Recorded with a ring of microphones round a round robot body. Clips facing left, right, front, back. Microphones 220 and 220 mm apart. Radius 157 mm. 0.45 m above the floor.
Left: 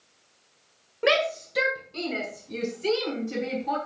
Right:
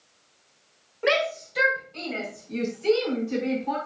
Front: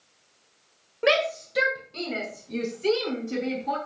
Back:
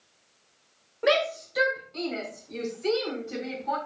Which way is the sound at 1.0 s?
55° left.